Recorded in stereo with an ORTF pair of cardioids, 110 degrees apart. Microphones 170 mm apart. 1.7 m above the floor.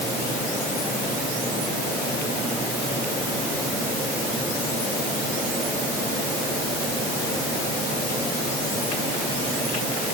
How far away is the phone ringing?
No phone ringing in this recording.